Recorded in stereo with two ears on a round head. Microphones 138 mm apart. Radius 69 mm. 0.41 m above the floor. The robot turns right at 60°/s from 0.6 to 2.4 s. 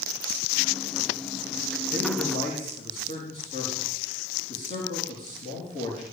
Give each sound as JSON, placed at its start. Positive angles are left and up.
{"t": 1.9, "sound": "a man speaking", "azimuth_deg": 5, "distance_m": 6.0}